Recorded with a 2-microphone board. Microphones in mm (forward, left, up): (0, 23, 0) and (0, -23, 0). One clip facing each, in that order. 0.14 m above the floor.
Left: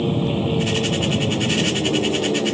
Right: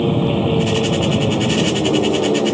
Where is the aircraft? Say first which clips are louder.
Right 4 dB; 25° right (ahead or behind).